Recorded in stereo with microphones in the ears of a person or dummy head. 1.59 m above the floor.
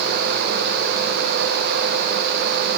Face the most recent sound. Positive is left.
No sound to turn to.